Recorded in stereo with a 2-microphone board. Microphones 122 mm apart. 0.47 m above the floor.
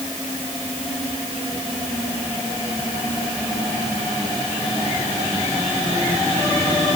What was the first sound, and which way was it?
Only background noise.